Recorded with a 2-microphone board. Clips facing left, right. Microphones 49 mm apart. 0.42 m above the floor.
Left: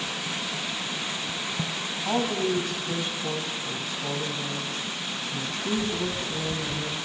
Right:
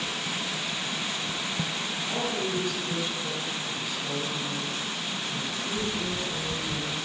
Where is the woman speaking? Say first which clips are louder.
Left 6 dB; 65° left (ahead or behind), 2 m.